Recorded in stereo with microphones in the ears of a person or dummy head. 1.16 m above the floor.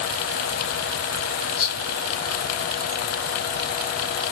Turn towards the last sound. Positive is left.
turn(degrees=15)  # may be behind; listen again after turning